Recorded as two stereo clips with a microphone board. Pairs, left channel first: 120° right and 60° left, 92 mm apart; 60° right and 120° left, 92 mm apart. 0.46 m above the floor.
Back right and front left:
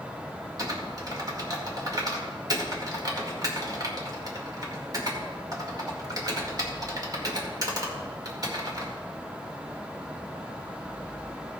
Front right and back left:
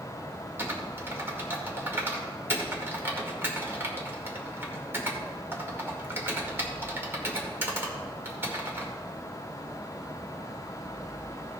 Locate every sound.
0.6 s typing on a keyboard: 65° left, 1.8 m